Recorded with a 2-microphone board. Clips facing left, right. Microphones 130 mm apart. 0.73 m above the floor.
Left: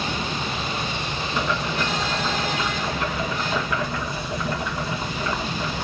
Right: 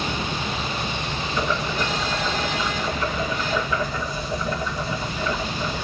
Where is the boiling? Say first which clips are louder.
Even; 70° left (ahead or behind), 3 m.